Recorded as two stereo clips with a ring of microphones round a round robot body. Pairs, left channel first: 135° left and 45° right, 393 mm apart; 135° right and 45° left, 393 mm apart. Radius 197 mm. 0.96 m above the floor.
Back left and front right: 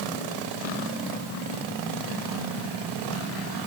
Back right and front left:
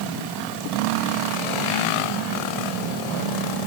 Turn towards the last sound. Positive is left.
No sound to turn to.